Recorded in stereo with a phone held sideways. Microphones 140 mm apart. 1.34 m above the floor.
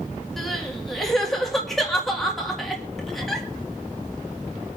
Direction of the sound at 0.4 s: Centre (ahead or behind).